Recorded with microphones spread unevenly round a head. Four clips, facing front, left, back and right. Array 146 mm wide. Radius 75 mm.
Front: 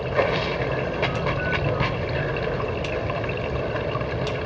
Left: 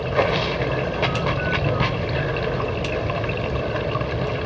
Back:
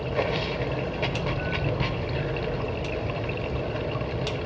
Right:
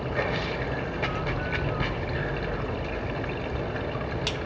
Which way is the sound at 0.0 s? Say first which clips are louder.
Left 8 dB, front 4 dB; 100° left.